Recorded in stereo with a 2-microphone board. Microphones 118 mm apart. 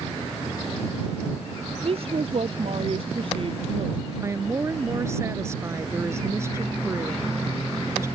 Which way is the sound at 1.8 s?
55° right (ahead or behind).